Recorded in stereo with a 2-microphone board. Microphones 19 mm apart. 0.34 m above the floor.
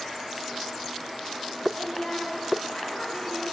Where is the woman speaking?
50° left (ahead or behind), 2.5 m; by 3.4 s 45° left (ahead or behind), 4 m.